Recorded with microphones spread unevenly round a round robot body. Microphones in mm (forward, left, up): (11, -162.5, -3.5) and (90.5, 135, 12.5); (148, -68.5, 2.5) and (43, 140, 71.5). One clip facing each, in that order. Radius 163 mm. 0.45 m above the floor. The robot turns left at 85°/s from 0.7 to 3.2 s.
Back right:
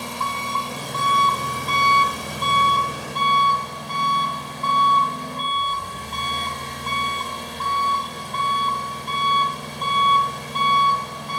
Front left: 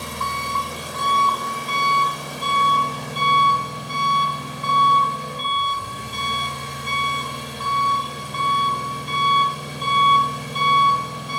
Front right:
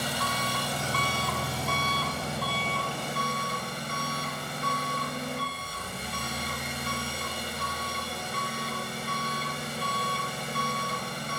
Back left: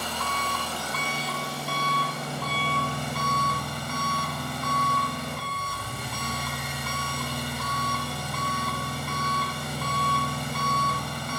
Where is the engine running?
10° left, 1.8 m; by 11.4 s 155° left, 1.8 m.